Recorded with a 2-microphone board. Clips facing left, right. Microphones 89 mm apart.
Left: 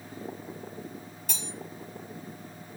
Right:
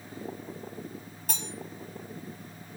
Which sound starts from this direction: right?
Cutlery clinking, at 1.3 s.